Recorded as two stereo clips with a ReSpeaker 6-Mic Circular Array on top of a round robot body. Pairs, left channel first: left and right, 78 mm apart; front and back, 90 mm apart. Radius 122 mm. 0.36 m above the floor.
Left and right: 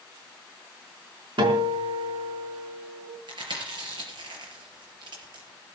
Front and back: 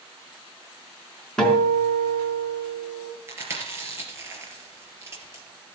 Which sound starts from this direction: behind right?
Chewing, at 3.3 s.